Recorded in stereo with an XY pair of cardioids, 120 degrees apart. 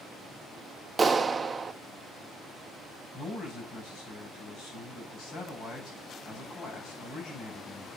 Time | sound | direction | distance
1.0 | a clap | 20° right | 0.7 m
3.1 | a man speaking | 60° left | 7 m